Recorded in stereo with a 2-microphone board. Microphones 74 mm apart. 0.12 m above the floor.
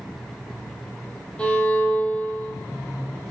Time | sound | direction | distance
1.4 | a violin | 15° left (ahead or behind) | 3 m